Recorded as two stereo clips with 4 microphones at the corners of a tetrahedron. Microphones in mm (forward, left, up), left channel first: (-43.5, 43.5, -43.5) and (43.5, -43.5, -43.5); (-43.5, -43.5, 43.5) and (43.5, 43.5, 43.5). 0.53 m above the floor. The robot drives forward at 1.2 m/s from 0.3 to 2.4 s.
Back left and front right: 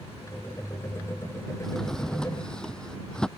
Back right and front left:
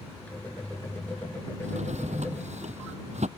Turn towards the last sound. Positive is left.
turn(degrees=50)